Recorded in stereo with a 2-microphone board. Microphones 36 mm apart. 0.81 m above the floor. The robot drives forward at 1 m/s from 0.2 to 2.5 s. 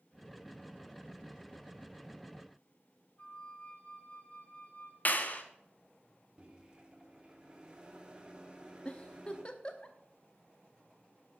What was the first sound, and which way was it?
A flute, 40° left (ahead or behind).